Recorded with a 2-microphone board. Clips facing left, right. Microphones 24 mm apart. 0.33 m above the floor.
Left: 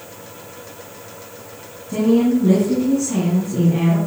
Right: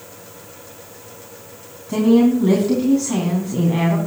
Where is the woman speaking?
40° right (ahead or behind), 3 m.